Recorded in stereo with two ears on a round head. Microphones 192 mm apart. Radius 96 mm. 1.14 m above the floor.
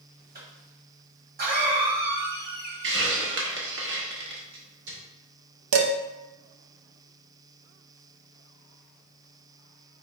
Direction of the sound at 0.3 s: 50° right (ahead or behind).